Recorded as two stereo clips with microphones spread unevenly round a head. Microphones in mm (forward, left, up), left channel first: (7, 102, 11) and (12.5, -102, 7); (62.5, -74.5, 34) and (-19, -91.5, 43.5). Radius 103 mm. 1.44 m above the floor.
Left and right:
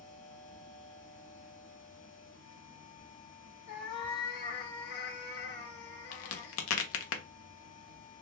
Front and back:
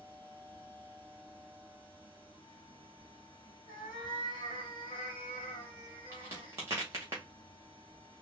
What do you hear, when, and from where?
0.0 s a machine running: 130° left, 1.5 m
3.7 s a cat meowing: 75° left, 1.2 m
6.1 s a crack: 120° left, 0.8 m